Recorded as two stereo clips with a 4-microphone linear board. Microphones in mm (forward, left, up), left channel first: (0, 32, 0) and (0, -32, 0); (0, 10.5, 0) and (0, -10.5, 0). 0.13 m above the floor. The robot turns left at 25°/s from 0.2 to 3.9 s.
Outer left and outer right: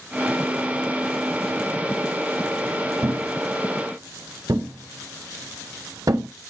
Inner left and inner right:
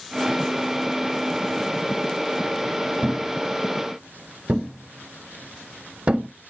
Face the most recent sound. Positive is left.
turn(degrees=-70)  # may be behind; listen again after turning